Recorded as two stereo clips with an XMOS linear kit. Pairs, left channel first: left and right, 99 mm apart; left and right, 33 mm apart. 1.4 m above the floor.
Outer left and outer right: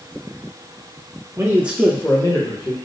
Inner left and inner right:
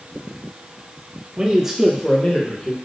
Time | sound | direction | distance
1.4 | a man speaking | 30° right (ahead or behind) | 1.2 m